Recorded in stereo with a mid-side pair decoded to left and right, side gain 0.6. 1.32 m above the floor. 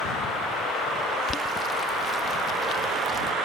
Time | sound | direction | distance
1.3 | boiling | 30° left | ?